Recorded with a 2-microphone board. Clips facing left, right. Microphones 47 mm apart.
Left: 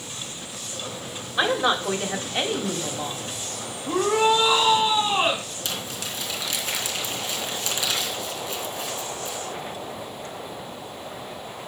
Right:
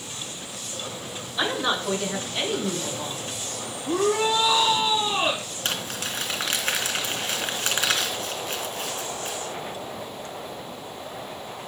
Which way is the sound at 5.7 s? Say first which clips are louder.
Right 4 dB; 50° right (ahead or behind).